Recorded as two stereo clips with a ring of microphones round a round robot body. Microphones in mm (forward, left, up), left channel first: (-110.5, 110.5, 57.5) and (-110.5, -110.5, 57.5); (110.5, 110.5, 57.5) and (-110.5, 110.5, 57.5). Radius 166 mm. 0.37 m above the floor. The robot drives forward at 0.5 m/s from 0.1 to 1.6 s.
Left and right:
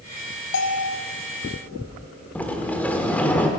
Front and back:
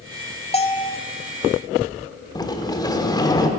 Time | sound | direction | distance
0.5 | a bell | 60° left | 1.2 m
2.4 | a sliding door | 20° left | 1.4 m